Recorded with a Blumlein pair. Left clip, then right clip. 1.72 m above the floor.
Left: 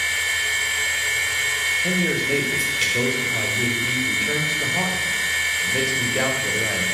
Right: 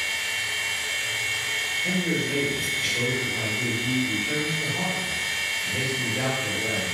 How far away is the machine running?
About 1.7 m.